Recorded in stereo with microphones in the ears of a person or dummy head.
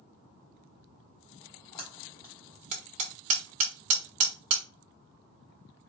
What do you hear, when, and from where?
1.4 s a splash: 20° left (ahead or behind), 1.2 m
2.7 s hammering: 45° right (ahead or behind), 1.1 m